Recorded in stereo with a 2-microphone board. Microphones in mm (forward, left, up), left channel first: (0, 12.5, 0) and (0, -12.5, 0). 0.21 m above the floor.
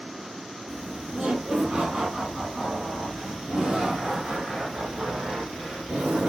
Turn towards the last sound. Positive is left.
turn(degrees=-60)  # may be behind; listen again after turning